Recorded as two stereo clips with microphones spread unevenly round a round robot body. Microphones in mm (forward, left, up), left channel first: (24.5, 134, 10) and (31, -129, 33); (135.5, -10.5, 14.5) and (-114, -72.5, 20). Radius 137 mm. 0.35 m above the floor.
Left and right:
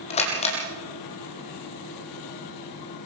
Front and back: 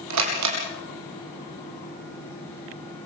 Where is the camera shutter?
160° left, 4 m.